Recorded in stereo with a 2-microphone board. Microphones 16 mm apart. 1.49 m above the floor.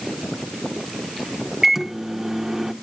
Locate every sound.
1.6 s a microwave: 30° right (ahead or behind), 1.0 m